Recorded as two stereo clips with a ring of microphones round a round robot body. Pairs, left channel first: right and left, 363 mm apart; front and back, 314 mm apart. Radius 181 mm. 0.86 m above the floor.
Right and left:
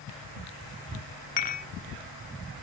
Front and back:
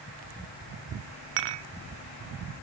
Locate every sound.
1.4 s dishes clattering: 160° right, 0.8 m